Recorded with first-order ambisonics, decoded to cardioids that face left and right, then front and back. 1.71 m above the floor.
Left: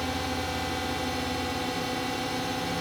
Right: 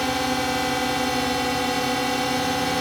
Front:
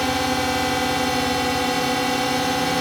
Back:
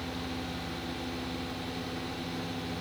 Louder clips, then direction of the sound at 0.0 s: Right 7 dB, front 17 dB; 30° right.